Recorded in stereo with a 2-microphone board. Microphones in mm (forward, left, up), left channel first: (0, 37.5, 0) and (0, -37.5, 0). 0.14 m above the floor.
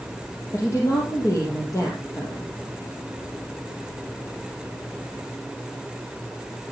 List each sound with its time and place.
0.5 s a woman speaking: 45° left (ahead or behind), 3.5 m